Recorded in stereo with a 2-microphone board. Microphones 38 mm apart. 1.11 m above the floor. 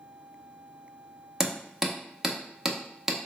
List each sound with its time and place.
1.4 s hammering: 10° right (ahead or behind), 0.6 m